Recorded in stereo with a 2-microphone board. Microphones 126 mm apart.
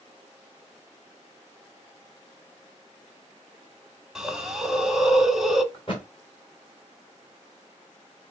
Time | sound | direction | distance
4.2 | a hiss | 5° right (ahead or behind) | 1.1 m
5.7 | a thud | 40° left (ahead or behind) | 3.5 m